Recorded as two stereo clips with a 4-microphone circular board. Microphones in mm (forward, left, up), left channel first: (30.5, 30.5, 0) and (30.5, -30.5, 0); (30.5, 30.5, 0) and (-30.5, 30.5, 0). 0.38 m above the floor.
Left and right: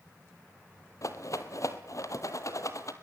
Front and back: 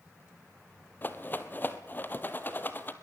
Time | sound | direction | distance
1.0 | a rattle | 60° left | 1.9 m